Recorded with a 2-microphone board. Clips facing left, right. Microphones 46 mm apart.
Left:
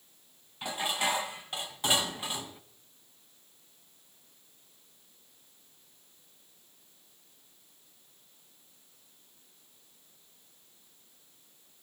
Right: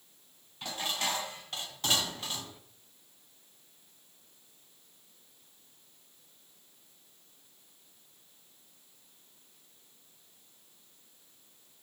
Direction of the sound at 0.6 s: 15° left (ahead or behind).